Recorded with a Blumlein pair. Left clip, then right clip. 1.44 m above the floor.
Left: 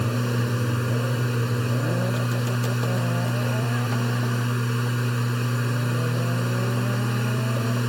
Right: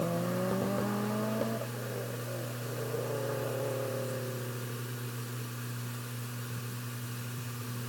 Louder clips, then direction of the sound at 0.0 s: Left 5 dB; 35° left.